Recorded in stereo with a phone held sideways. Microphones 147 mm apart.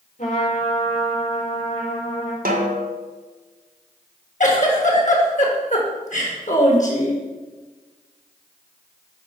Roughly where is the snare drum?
Right.